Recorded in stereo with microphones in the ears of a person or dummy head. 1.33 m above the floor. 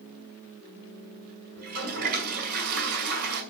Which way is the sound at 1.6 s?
55° right (ahead or behind).